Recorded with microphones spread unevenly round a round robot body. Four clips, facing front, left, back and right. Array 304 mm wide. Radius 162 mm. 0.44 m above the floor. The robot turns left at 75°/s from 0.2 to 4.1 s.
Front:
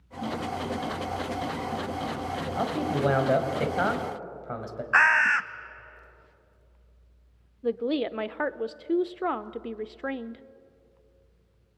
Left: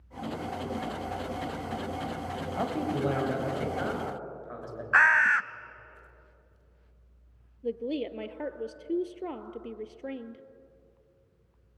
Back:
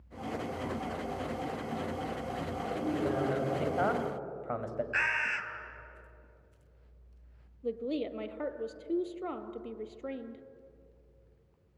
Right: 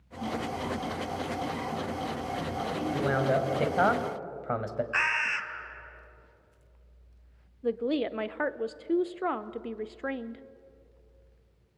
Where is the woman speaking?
20° right, 0.9 m.